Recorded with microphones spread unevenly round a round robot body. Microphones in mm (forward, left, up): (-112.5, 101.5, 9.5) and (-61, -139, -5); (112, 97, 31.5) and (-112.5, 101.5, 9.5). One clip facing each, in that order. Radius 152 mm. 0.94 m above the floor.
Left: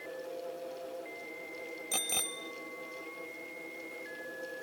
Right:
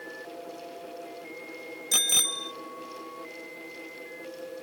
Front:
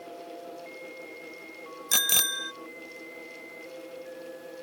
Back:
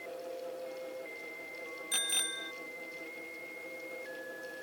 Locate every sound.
1.9 s a bicycle bell: straight ahead